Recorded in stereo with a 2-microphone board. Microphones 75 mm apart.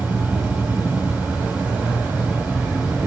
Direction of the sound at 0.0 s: 15° right (ahead or behind).